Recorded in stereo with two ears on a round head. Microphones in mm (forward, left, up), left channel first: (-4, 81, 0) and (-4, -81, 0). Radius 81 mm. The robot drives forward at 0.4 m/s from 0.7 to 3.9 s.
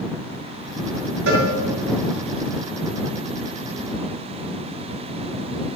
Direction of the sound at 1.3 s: 85° right.